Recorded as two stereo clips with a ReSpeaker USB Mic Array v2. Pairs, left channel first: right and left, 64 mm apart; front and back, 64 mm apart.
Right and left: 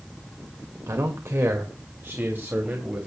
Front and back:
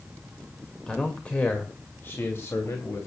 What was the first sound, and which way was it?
A man speaking, 75° left.